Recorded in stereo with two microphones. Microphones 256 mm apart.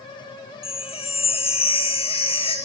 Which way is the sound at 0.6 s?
20° left (ahead or behind).